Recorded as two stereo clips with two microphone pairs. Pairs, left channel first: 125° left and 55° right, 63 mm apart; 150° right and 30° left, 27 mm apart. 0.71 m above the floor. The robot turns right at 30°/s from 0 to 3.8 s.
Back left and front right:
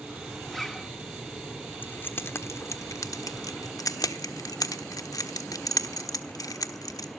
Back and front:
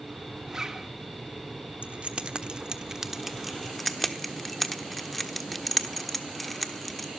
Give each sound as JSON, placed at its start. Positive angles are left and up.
{"t": 0.5, "sound": "a zipper", "azimuth_deg": 45, "distance_m": 1.0}
{"t": 1.8, "sound": "keys jangling", "azimuth_deg": 70, "distance_m": 1.2}